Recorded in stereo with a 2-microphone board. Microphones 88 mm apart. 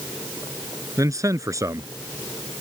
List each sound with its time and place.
1.0 s a man speaking: 40° right (ahead or behind)